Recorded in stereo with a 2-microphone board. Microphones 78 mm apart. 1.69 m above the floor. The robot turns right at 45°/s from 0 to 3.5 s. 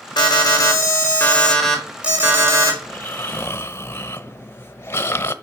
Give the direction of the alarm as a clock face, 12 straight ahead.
8 o'clock.